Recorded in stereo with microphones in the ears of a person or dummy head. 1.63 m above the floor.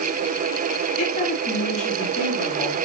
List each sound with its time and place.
1.0 s a woman speaking: 50° left (ahead or behind), 3.5 m; by 2.8 s 35° left (ahead or behind), 4 m